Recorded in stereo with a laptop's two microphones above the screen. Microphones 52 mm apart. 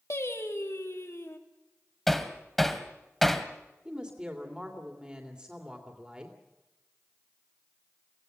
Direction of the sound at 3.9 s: 20° right (ahead or behind).